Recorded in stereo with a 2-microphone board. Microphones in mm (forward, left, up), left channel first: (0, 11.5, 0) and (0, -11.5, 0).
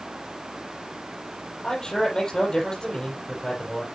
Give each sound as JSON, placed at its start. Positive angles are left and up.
{"t": 1.6, "sound": "a man speaking", "side_deg": 30, "distance_m": 6.0}